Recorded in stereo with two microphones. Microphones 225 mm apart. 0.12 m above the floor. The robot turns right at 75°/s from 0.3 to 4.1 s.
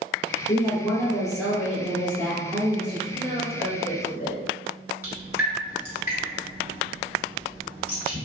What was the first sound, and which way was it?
A woman speaking, 20° left (ahead or behind).